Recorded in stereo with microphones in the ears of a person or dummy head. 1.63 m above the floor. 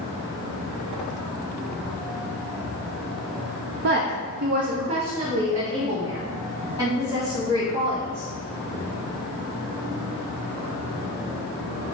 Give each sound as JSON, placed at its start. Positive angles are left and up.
{"t": 3.8, "sound": "a woman speaking", "side_deg": -55, "distance_m": 0.5}